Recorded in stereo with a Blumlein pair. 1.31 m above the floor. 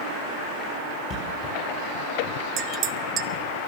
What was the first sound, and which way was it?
A thud, 25° left.